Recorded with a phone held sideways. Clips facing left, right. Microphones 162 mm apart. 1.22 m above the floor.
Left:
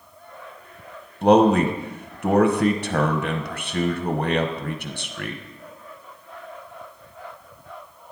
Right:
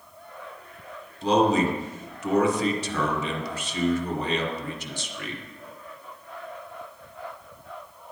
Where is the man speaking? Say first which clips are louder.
Left 5 dB; 60° left (ahead or behind), 0.7 m.